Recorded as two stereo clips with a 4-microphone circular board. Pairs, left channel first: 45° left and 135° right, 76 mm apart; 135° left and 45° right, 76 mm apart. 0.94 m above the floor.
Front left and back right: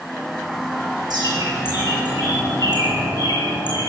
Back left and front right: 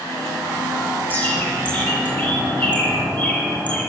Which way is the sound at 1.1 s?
155° right.